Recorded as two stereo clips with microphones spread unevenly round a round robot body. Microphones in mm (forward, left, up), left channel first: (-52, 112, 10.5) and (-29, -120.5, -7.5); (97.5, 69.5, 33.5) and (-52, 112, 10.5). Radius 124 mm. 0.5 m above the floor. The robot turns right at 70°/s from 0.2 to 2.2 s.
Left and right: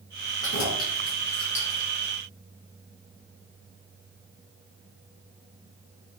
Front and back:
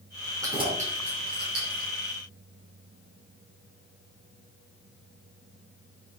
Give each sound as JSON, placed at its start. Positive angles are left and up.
{"t": 0.4, "sound": "keys jangling", "azimuth_deg": 95, "distance_m": 4.5}